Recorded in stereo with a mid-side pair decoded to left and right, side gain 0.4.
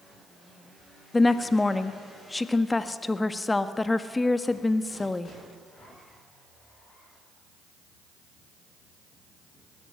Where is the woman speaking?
25° left, 1.4 m.